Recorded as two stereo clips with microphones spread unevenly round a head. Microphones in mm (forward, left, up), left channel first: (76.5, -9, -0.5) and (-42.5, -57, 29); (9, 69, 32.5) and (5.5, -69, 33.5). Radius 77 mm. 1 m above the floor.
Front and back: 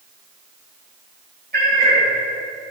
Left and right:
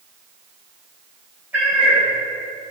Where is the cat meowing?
175° right, 3 m.